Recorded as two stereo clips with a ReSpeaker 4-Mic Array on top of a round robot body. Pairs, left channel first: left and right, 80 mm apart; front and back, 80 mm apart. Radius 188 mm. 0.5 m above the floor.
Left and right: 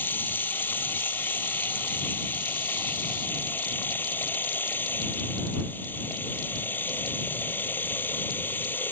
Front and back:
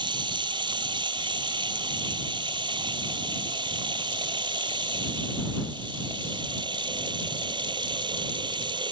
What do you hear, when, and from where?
0.0 s running water: 155° left